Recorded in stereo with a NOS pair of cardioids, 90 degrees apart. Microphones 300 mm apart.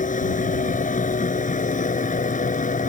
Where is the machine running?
25° left.